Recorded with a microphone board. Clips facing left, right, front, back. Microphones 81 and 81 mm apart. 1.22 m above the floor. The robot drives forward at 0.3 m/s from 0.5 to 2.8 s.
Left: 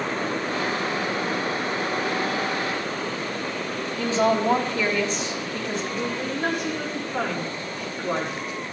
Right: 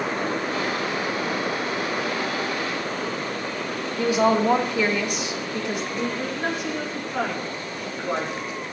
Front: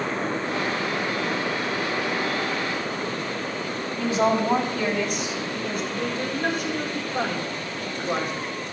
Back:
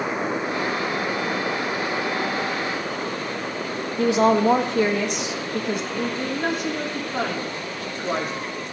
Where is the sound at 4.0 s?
165° right, 1.6 m.